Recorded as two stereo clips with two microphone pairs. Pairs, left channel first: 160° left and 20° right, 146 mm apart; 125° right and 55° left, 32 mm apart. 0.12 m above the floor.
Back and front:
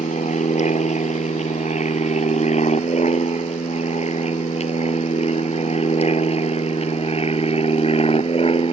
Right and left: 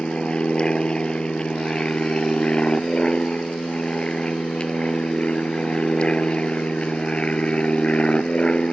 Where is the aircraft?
Straight behind; by 8.7 s 170° right.